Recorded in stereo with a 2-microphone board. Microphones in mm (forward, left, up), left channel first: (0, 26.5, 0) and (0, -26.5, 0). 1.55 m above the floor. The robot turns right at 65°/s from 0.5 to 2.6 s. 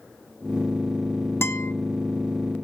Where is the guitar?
50° left (ahead or behind), 0.9 m; by 1.7 s 65° left (ahead or behind), 0.9 m.